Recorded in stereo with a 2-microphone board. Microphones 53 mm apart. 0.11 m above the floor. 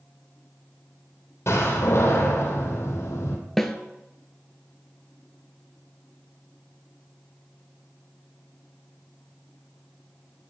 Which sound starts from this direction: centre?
A snare drum, at 3.6 s.